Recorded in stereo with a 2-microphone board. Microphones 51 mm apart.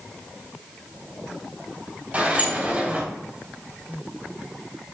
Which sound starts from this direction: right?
A sliding door, at 2.1 s.